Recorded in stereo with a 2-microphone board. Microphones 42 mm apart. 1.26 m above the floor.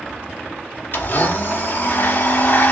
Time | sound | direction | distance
0.9 | a blender | 50° left (ahead or behind) | 1.0 m